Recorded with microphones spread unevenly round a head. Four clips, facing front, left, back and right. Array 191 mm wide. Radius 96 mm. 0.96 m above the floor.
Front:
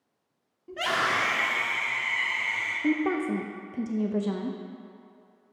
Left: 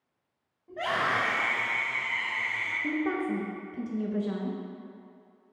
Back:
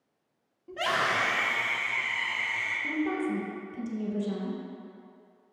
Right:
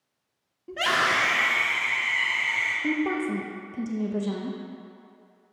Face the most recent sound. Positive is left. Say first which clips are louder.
# right 2 dB, front 4 dB
turn(degrees=-15)